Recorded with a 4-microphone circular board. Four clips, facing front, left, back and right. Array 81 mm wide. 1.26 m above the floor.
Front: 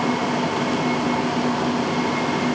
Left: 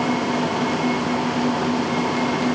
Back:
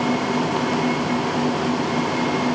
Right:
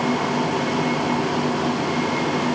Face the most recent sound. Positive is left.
No sound to turn to.